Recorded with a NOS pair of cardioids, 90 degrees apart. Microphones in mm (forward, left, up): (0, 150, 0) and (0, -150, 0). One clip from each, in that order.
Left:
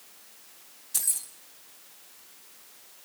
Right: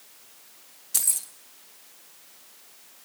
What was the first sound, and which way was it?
Keys jangling, 25° right.